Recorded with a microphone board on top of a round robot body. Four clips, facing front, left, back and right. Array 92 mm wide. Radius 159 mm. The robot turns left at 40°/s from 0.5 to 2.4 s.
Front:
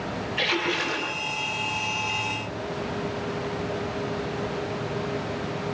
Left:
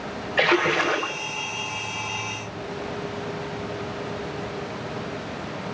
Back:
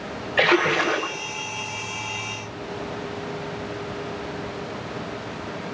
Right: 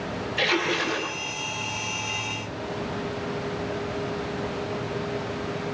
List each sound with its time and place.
0.4 s a splash: 145° left, 3 m; by 1.1 s 120° left, 3 m